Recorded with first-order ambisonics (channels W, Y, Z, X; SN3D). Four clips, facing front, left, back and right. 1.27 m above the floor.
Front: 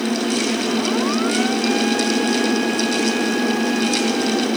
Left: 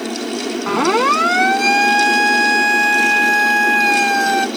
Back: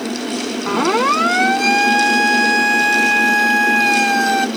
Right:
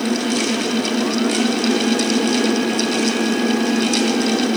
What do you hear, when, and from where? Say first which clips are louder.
0.7 s a siren: left 5 dB, back 4 dB; 125° left; by 4.5 s 135° left